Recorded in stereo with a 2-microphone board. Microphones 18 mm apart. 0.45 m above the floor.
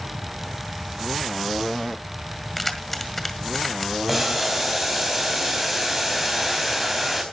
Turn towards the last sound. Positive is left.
turn(degrees=-10)  # may be behind; listen again after turning